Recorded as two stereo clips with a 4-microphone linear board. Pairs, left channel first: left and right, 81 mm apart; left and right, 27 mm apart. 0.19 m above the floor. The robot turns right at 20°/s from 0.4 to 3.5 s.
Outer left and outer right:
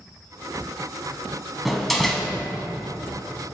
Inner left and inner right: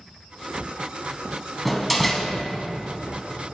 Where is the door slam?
Centre (ahead or behind), 1.0 m; by 2.3 s 5° left (ahead or behind), 1.0 m.